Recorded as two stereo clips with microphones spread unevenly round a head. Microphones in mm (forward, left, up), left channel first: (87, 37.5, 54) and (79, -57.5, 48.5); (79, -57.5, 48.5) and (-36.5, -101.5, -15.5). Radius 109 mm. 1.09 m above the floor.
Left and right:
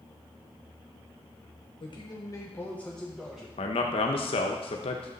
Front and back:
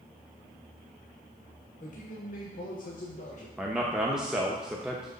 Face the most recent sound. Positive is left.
turn(degrees=120)